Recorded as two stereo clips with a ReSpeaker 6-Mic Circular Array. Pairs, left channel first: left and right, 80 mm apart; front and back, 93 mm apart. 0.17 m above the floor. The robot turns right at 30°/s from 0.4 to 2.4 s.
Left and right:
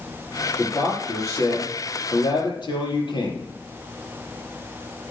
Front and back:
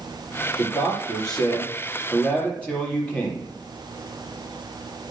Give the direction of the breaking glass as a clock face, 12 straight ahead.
No breaking glass in this recording.